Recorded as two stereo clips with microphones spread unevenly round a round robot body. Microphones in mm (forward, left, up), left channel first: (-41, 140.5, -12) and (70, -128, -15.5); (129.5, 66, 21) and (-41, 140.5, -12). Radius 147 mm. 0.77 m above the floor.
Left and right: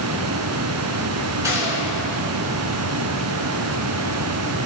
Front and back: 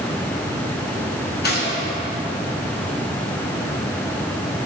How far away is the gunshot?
About 2 m.